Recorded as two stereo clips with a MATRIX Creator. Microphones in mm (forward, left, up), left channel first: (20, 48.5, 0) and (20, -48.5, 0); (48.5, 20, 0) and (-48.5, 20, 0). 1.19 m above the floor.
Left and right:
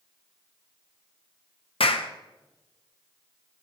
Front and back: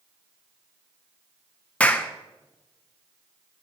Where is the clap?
75° left, 0.6 m.